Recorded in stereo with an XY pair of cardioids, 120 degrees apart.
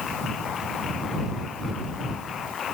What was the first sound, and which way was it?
Only background noise.